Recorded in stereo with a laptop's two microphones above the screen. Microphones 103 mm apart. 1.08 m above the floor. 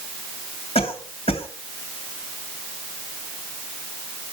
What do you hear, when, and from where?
0.8 s a cough: 75° left (ahead or behind), 2.5 m